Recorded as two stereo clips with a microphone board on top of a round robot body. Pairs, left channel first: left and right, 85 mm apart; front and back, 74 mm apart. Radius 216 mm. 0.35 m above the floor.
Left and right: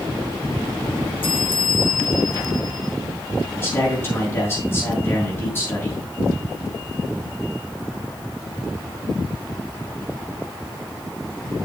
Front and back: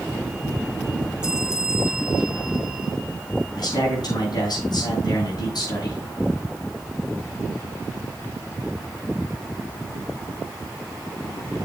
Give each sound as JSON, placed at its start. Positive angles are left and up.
{"t": 1.2, "sound": "a bell", "azimuth_deg": 100, "distance_m": 1.7}
{"t": 3.5, "sound": "a man speaking", "azimuth_deg": 25, "distance_m": 5.5}